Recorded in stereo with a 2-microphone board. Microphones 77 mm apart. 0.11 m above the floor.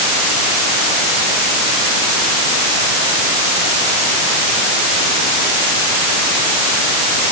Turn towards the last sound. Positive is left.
No sound to turn to.